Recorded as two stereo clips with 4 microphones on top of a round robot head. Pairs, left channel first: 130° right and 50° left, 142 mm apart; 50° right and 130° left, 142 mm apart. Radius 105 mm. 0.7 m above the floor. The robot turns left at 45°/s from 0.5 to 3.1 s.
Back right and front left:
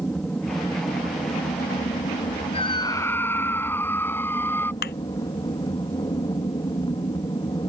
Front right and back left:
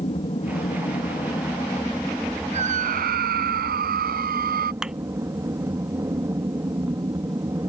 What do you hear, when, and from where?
0.0 s an aircraft: 55° right; by 7.7 s 170° right
2.5 s a scream: straight behind; by 4.7 s 150° left
4.8 s a thud: 145° right